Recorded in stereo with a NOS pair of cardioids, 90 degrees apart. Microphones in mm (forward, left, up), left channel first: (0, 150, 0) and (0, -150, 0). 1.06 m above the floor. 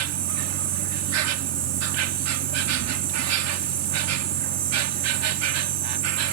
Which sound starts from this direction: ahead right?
An insect, at 0.0 s.